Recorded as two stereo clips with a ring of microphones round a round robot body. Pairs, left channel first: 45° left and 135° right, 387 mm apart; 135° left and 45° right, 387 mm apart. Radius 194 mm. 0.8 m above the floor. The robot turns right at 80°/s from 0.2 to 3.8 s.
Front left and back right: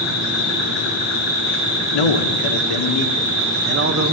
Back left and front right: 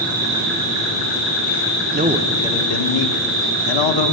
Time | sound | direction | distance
0.0 | an insect | 25° left | 6 m
1.9 | a man speaking | 20° left | 1.4 m